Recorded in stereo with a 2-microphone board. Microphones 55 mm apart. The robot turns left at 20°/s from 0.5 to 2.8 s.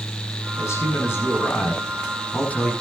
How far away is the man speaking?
About 6 m.